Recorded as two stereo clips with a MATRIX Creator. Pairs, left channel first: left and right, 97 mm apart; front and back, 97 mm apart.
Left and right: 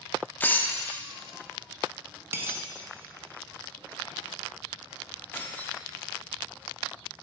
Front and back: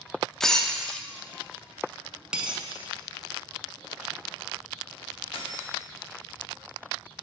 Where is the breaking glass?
75° left, 0.5 m.